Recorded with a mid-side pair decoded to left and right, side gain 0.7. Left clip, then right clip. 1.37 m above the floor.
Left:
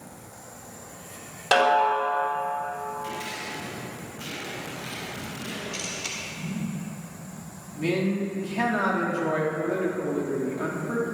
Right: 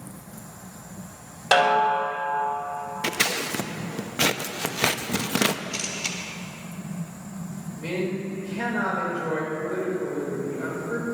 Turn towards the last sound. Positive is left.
turn(degrees=65)